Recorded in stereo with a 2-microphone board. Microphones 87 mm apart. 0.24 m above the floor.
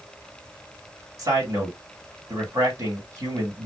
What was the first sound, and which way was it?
A man speaking, 40° right (ahead or behind).